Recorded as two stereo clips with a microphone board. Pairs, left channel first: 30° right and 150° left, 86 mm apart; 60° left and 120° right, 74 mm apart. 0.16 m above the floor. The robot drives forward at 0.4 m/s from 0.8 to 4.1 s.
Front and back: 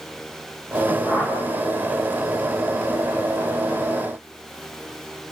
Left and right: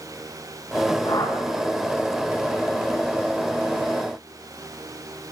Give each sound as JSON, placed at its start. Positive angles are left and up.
{"t": 1.1, "sound": "a whoosh", "azimuth_deg": 75, "distance_m": 8.5}